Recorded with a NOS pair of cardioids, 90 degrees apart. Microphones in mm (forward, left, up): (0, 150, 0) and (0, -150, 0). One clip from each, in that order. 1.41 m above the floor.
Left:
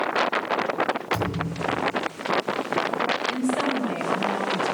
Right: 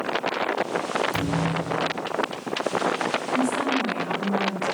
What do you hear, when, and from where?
1.1 s a thud: 30° right, 7 m
3.3 s a woman speaking: 20° right, 5.5 m